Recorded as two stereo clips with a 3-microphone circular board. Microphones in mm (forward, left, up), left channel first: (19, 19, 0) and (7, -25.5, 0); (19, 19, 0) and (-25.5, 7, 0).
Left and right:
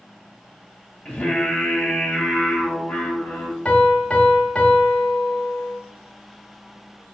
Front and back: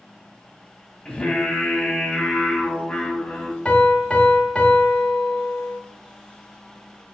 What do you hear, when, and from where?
1.1 s singing: 40° left, 1.5 m
3.6 s a piano: 40° left, 0.8 m